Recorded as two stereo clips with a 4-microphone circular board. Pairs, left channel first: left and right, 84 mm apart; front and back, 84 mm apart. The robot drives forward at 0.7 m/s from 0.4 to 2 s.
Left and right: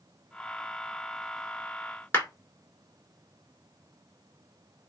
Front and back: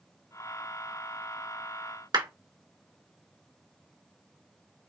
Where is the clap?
155° left, 2 m.